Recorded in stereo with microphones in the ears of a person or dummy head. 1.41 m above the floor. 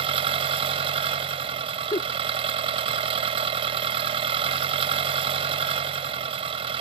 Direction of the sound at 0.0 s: 30° right (ahead or behind).